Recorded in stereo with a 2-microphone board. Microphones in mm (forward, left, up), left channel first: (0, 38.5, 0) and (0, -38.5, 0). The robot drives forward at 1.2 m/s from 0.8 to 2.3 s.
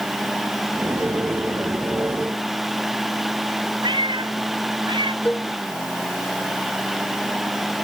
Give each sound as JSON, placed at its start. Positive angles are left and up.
{"t": 3.8, "sound": "a cat meowing", "side_deg": -75}
{"t": 5.2, "sound": "a cowbell", "side_deg": 15}